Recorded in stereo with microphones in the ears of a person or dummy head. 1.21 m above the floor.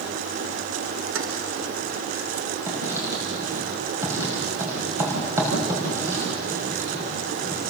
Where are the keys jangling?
75° right (ahead or behind), 3 m.